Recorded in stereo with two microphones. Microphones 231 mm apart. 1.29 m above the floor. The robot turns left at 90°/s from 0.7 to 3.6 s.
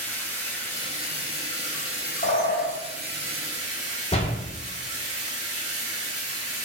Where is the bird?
70° left, 1.4 m; by 2.7 s 25° left, 1.4 m.